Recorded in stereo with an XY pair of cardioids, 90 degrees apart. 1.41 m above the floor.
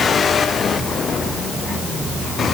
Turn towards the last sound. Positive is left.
No sound to turn to.